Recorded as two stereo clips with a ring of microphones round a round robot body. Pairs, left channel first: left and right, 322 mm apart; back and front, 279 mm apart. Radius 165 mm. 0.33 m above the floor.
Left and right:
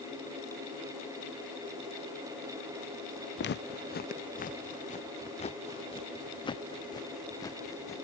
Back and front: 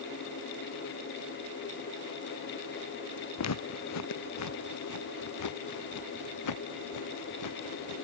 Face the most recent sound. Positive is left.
turn(degrees=170)